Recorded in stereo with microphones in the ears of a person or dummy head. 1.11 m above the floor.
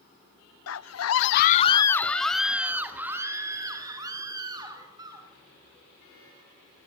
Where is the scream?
70° left (ahead or behind), 0.8 m; by 5.3 s 20° right (ahead or behind), 3.5 m.